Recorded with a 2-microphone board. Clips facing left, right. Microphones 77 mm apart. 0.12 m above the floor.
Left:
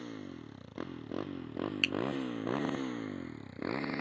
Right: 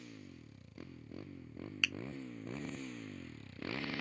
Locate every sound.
0.0 s a motorcycle: 60° left (ahead or behind); by 4.0 s 25° left (ahead or behind)
1.8 s a finger snap: 10° right (ahead or behind)